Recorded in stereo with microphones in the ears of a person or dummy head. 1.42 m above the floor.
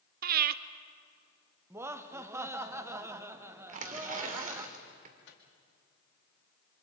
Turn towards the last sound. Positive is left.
turn(degrees=70)  # may be behind; listen again after turning